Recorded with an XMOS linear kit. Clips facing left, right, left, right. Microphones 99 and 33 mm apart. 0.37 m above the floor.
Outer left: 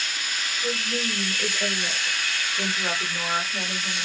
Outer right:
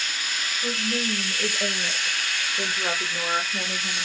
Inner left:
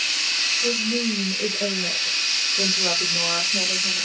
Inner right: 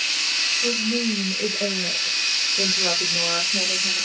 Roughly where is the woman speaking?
Centre.